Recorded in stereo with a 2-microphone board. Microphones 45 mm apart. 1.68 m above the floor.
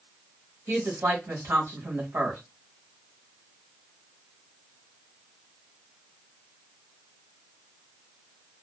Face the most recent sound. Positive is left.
turn(degrees=-80)